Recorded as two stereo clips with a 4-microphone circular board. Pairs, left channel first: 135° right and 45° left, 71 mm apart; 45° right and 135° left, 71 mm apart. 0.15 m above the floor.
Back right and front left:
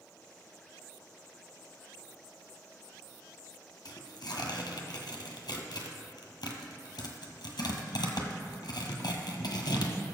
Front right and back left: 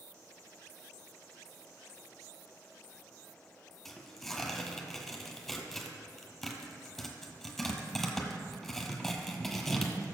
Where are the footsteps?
I don't hear footsteps.